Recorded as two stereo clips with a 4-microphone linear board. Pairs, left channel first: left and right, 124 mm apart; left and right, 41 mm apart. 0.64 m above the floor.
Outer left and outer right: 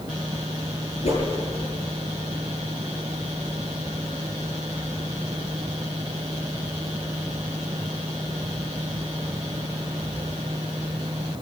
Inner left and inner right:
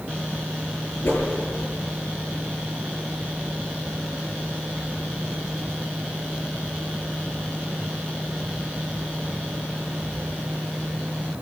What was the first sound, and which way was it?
A whoosh, 60° left (ahead or behind).